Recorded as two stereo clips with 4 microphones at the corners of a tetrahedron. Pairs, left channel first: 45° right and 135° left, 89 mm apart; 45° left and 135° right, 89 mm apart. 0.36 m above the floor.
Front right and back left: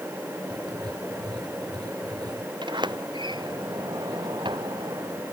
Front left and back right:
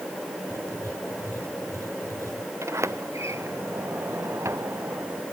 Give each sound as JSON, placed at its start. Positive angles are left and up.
{"t": 0.5, "sound": "writing", "azimuth_deg": 170}
{"t": 2.6, "sound": "a sliding door", "azimuth_deg": 170}